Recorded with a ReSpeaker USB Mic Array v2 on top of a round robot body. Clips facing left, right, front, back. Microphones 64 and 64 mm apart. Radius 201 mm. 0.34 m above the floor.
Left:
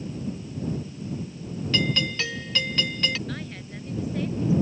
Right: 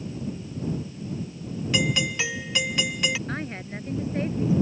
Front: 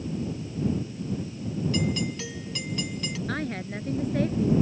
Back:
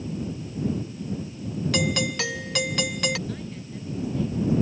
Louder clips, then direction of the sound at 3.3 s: Right 3 dB, front 5 dB; 35° right.